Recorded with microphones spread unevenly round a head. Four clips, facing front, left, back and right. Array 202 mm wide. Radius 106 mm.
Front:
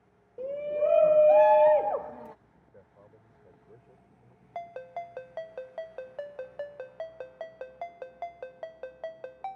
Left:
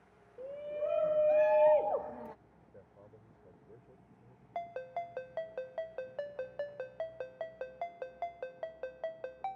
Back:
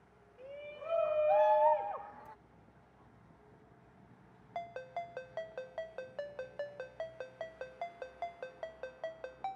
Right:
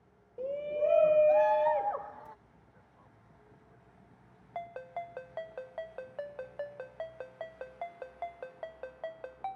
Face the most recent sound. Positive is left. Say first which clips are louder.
# left 1 dB, front 3 dB
turn(degrees=75)